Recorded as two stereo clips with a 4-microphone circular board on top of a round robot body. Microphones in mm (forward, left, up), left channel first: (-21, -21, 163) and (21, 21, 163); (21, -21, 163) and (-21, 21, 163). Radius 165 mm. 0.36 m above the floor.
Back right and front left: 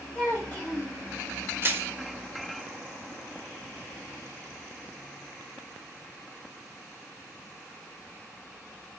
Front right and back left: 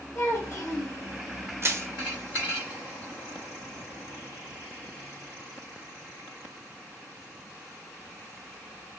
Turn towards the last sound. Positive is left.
turn(degrees=95)